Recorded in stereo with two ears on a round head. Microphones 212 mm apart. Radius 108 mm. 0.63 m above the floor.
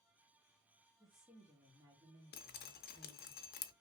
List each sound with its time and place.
1.0 s a woman speaking: centre (ahead or behind), 1.2 m; by 3.3 s 25° right (ahead or behind), 2 m
2.3 s dripping: 45° left (ahead or behind), 0.6 m